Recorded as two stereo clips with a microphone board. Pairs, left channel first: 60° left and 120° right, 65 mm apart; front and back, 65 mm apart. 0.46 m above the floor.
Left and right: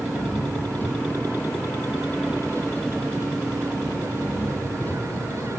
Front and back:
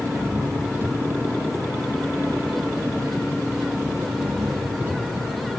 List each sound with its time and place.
0.0 s an engine running: 125° left